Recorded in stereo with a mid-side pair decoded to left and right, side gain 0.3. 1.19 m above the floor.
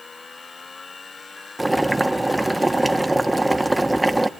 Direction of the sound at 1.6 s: 5° right.